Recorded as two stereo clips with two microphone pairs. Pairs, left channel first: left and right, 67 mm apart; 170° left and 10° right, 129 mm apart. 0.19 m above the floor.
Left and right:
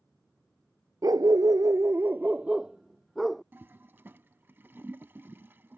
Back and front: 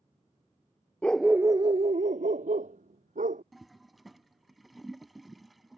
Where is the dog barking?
110° right; by 3.4 s straight ahead.